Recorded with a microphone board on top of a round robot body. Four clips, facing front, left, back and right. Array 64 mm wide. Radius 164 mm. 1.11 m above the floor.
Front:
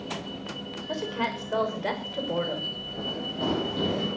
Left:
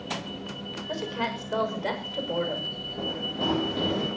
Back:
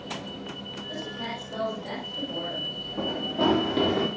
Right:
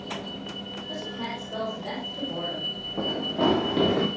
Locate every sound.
0.9 s a woman speaking: 25° left, 6.5 m; by 2.7 s 20° left, 8 m
3.0 s running footsteps: 105° right, 5 m; by 4.1 s 120° right, 5.5 m